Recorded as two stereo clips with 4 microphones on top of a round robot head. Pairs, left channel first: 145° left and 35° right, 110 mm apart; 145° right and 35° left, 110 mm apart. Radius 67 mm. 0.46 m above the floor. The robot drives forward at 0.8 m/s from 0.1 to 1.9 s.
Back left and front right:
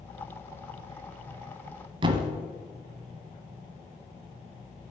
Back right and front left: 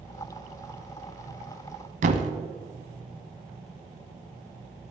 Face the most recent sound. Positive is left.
turn(degrees=15)